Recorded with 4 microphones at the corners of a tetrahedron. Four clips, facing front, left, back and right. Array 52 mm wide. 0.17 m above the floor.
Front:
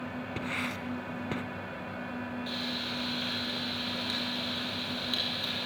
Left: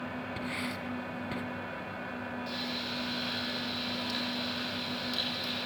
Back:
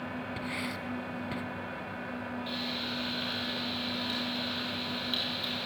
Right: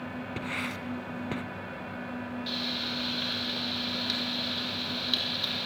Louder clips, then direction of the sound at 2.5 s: Right 5 dB, even; 75° right.